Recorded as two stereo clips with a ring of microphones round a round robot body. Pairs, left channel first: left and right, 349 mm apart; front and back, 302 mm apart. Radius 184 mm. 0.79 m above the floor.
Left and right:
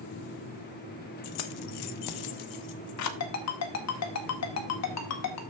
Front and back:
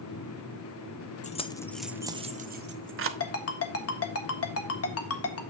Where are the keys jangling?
65° left, 0.8 m; by 3.1 s 135° left, 1.0 m.